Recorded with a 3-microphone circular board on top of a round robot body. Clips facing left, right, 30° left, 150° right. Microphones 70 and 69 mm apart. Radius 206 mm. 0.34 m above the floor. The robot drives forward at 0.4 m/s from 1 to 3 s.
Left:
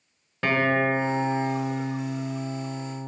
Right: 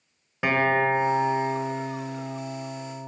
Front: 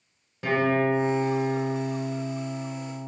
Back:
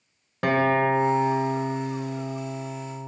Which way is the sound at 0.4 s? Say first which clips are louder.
Right 1 dB, back 2 dB; 170° right.